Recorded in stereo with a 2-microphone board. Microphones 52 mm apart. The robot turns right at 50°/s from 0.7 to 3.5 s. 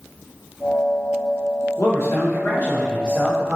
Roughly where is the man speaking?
Left.